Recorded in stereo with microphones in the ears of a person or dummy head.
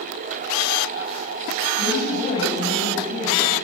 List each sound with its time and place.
1.8 s a woman speaking: 40° left (ahead or behind), 8.5 m